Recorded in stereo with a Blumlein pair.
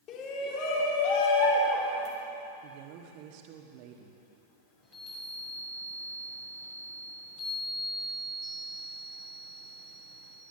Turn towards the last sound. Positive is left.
turn(degrees=40)